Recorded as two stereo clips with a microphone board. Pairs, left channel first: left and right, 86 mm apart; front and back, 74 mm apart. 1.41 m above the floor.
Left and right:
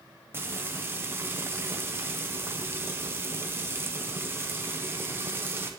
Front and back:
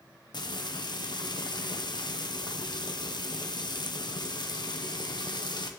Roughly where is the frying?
Ahead right.